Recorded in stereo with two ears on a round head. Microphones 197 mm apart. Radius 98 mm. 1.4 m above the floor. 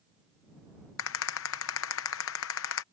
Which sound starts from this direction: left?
A rattle, at 1.0 s.